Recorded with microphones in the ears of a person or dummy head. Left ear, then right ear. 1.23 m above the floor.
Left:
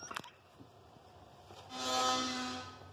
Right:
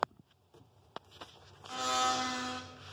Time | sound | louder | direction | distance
1.7 | a blender | right 2 dB | 35° right (ahead or behind) | 0.8 m